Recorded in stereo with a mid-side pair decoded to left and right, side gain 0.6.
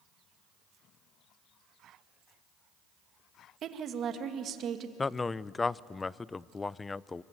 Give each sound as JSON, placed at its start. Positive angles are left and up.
{"t": 3.6, "sound": "a woman speaking", "azimuth_deg": -50, "distance_m": 2.0}
{"t": 5.0, "sound": "a man speaking", "azimuth_deg": 20, "distance_m": 0.5}